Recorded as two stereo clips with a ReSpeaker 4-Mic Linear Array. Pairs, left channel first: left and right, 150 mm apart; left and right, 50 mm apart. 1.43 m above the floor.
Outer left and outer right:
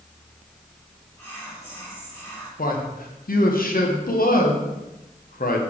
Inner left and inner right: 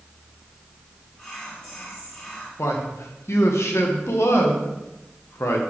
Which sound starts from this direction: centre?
Whispering, at 1.2 s.